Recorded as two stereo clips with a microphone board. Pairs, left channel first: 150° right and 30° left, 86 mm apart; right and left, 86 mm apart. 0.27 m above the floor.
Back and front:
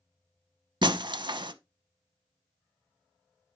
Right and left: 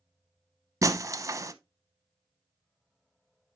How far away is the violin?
No violin in this recording.